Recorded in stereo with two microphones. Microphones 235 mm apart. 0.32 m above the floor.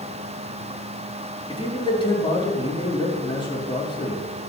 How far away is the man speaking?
About 5.5 m.